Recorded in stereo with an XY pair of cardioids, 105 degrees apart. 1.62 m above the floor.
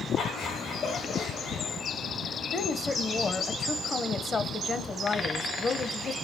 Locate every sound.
0.2 s laughter: 65° left, 3 m
2.5 s a woman speaking: 35° left, 1.3 m